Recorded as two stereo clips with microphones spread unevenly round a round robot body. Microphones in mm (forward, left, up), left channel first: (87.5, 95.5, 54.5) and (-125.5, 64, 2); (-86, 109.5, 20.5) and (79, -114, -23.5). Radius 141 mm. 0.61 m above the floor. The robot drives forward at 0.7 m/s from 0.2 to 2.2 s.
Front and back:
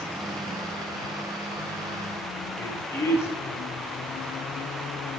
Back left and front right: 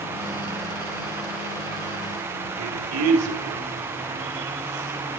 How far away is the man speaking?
About 1.9 m.